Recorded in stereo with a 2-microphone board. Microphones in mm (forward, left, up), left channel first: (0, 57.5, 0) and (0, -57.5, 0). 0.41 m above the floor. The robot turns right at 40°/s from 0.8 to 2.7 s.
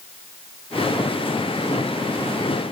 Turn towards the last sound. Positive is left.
No sound to turn to.